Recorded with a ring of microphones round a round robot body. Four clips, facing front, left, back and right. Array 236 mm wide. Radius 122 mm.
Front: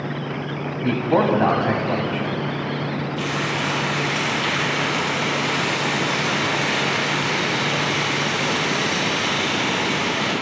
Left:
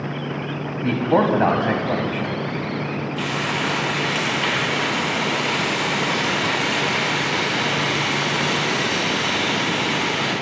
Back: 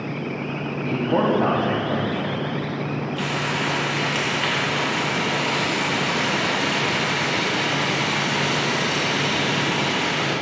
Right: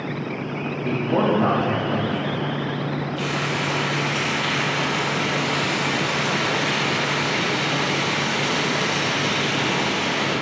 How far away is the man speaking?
About 0.8 m.